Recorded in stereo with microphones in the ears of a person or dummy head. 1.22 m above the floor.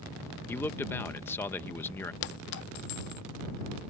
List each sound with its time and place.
0.5 s a man speaking: 15° left (ahead or behind)
2.2 s a clink: 65° left (ahead or behind)